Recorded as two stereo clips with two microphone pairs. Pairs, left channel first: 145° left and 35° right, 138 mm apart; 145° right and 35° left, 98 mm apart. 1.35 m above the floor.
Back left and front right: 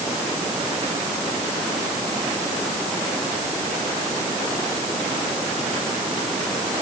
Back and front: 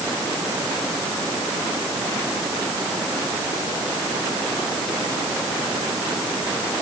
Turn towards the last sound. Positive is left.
No sound to turn to.